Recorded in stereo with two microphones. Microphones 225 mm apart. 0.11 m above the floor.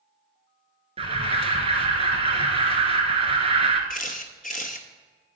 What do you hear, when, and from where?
1.0 s an alarm: 25° right (ahead or behind), 0.9 m
3.9 s a camera shutter: 40° left (ahead or behind), 0.7 m